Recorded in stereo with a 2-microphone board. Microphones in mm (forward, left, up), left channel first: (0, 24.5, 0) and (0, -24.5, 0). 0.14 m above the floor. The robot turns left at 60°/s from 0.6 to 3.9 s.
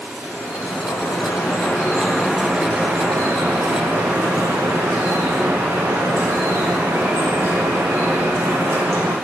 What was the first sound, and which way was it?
Dripping, 95° left.